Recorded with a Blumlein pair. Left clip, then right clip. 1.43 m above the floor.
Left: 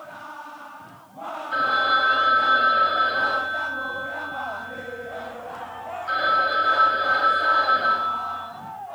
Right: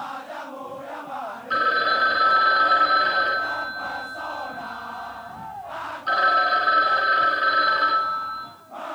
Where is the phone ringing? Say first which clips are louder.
Even; 55° right, 3.5 m.